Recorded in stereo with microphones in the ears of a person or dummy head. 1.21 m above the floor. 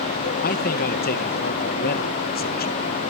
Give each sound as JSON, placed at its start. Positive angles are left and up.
{"t": 0.4, "sound": "a man speaking", "side_deg": 45, "distance_m": 1.5}